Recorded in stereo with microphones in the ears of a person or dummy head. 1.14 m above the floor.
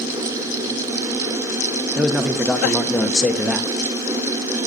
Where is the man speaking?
Centre (ahead or behind), 0.6 m.